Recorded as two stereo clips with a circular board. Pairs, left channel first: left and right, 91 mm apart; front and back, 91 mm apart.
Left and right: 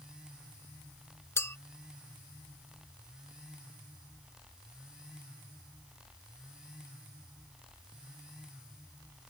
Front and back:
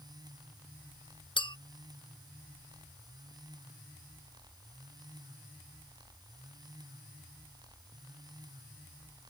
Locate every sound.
1.4 s a clink: 30° left